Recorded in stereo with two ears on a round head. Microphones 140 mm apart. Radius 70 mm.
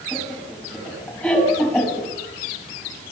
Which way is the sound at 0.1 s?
10° left (ahead or behind).